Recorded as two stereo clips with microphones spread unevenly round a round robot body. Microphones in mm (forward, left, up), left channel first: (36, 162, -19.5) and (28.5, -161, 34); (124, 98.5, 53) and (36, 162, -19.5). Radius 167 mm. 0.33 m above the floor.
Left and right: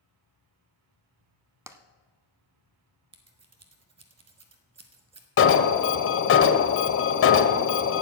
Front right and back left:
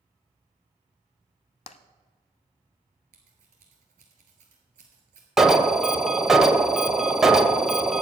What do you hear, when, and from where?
1.7 s tapping: 10° right, 0.7 m
3.1 s scissors: 165° right, 0.8 m
5.4 s an alarm: 100° left, 0.8 m